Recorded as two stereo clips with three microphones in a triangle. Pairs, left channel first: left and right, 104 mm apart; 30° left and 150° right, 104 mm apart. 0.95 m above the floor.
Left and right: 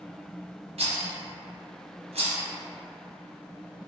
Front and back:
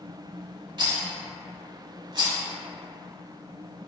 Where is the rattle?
105° right, 0.6 m.